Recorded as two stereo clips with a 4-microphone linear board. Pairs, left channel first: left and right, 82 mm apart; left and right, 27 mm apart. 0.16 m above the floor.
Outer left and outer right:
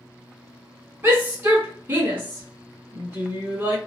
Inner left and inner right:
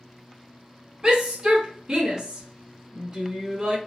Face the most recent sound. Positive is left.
turn(degrees=-25)  # may be behind; listen again after turning